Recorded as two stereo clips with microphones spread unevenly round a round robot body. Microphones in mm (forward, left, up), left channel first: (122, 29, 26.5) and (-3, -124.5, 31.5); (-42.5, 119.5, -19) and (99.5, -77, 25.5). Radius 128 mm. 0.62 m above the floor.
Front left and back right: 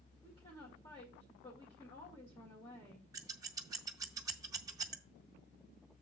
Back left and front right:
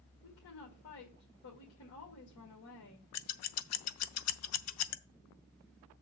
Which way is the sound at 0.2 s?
120° left.